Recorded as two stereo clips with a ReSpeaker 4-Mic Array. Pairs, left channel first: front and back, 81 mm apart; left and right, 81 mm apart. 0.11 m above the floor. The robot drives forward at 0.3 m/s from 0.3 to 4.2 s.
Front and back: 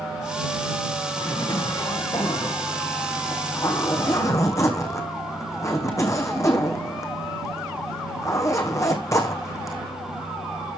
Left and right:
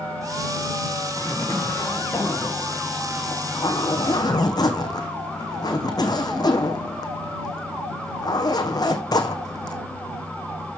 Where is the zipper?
35° left, 2.5 m; by 9.8 s 50° left, 1.6 m.